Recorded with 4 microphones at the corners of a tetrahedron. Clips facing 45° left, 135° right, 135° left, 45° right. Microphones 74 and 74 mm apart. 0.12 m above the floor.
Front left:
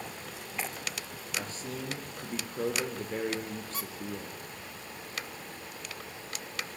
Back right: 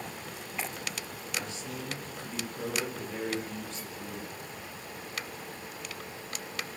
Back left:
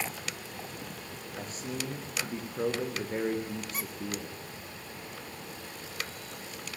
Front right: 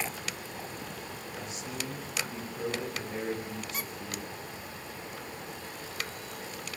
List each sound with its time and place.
1.4 s a man speaking: 90° left, 6 m
3.7 s a squeak: 50° left, 1.1 m